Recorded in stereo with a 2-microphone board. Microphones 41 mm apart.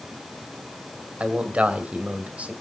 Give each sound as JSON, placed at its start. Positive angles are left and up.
{"t": 1.2, "sound": "a man speaking", "side_deg": -30, "distance_m": 2.0}